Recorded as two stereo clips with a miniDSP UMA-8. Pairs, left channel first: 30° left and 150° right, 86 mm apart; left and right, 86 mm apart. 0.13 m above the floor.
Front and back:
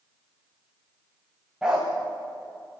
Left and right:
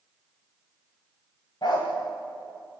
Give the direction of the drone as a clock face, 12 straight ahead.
I don't hear a drone.